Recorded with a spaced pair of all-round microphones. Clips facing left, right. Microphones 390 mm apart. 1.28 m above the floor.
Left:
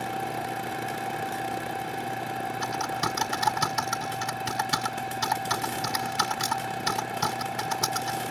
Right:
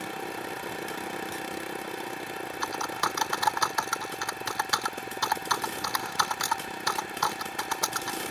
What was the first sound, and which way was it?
A fan, 70° left (ahead or behind).